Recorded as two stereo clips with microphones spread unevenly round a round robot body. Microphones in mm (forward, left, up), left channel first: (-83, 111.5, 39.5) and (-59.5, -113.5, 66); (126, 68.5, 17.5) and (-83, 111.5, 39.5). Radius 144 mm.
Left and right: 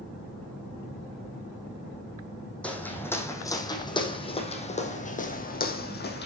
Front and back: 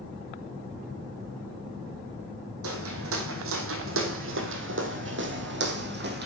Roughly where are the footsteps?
Behind.